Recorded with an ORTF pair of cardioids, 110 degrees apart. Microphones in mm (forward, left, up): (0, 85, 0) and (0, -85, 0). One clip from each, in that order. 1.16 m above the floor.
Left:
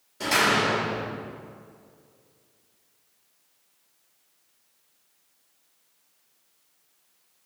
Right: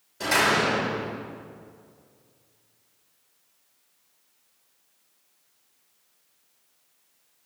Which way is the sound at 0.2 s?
Straight ahead.